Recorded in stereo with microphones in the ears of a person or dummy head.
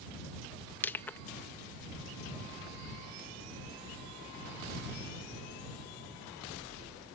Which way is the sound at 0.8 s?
10° left (ahead or behind).